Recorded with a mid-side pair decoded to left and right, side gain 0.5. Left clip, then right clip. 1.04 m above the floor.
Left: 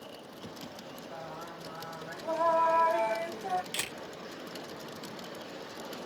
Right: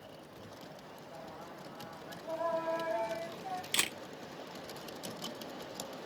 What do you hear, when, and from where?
1.1 s singing: 55° left, 1.1 m
3.7 s a camera shutter: 45° right, 1.8 m